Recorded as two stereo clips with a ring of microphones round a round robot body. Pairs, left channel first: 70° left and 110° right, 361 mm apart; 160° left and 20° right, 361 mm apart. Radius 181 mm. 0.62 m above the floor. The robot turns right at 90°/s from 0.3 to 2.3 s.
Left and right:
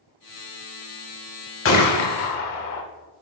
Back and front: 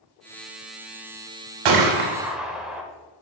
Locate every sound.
1.6 s a gunshot: 5° left, 1.0 m; by 2.8 s 65° left, 1.0 m